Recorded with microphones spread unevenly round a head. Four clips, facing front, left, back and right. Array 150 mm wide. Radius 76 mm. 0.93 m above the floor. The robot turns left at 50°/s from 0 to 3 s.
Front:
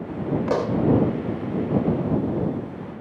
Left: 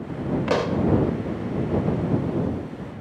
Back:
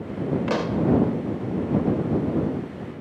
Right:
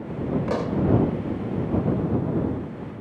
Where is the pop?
Straight behind; by 0.8 s 160° left.